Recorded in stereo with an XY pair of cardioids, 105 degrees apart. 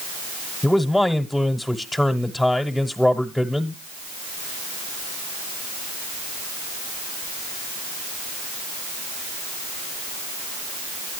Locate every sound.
0.6 s a man speaking: 5° left, 1.0 m